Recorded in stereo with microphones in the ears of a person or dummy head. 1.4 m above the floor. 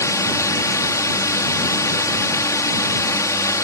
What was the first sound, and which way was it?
A drone, 10° left (ahead or behind).